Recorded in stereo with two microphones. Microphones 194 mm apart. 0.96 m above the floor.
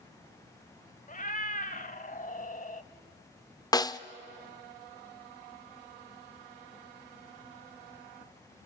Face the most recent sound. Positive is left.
turn(degrees=20)  # may be behind; listen again after turning